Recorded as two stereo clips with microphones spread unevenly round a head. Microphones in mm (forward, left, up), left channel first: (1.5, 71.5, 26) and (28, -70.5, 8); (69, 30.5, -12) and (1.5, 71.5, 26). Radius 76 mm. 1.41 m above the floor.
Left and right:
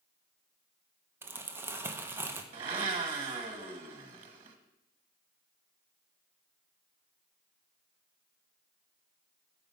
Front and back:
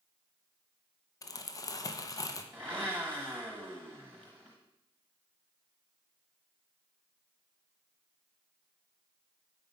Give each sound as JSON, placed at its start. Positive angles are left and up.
{"t": 1.2, "sound": "crumpling", "azimuth_deg": -10, "distance_m": 0.8}
{"t": 2.5, "sound": "a blender", "azimuth_deg": -140, "distance_m": 1.1}